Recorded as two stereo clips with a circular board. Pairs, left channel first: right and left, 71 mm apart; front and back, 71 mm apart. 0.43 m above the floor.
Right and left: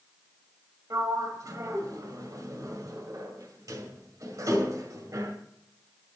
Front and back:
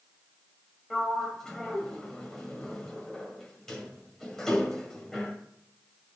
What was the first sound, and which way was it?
A sliding door, 85° left.